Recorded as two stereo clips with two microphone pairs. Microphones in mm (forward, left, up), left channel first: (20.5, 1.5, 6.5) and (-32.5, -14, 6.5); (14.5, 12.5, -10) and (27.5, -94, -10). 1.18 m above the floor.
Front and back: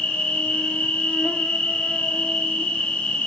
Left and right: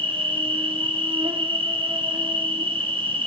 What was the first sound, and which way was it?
An insect, 50° right.